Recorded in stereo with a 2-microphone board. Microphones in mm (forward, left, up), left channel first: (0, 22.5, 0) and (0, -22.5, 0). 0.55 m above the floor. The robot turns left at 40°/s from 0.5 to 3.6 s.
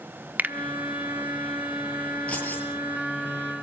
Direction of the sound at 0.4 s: 35° right (ahead or behind).